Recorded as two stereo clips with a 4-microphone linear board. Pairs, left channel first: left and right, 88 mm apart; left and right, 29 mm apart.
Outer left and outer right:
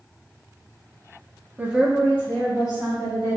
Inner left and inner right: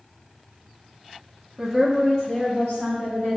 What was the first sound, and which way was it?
A woman speaking, 20° right (ahead or behind).